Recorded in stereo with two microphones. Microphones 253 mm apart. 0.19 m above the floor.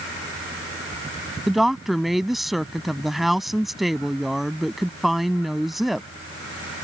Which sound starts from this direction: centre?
A woman speaking, at 1.5 s.